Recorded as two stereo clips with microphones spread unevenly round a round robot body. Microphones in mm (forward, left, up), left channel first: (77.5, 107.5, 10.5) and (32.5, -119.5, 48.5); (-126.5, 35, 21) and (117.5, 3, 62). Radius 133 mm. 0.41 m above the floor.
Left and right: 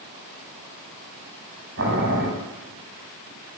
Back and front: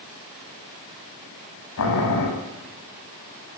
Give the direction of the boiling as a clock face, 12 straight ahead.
5 o'clock.